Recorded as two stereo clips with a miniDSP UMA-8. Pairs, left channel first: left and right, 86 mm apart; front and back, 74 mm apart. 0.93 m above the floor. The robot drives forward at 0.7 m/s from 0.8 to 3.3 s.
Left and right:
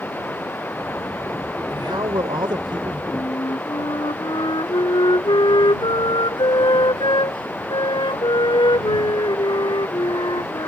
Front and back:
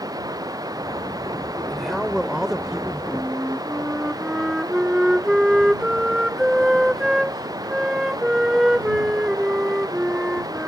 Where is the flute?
95° left.